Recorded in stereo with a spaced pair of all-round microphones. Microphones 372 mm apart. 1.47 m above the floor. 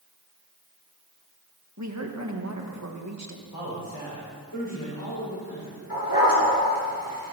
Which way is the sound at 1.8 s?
45° right (ahead or behind).